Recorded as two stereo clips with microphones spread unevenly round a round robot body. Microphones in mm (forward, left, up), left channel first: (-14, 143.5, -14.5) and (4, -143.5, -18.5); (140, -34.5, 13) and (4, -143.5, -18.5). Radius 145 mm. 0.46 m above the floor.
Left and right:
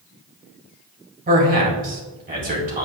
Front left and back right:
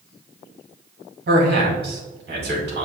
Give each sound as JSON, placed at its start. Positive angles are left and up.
{"t": 1.3, "sound": "a man speaking", "azimuth_deg": -145, "distance_m": 2.0}